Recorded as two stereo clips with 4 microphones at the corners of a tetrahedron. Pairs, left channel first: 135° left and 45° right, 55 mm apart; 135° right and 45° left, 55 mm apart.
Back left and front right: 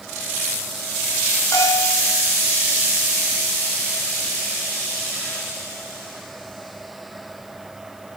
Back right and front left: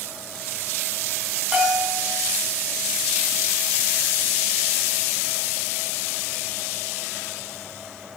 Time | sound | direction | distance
1.5 | a bell | 125° left | 4.5 m